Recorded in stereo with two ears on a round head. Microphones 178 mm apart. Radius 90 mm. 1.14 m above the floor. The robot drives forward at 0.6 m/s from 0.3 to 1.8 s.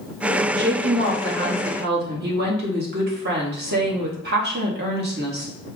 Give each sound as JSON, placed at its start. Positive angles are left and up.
{"t": 0.6, "sound": "a woman speaking", "side_deg": -60, "distance_m": 1.0}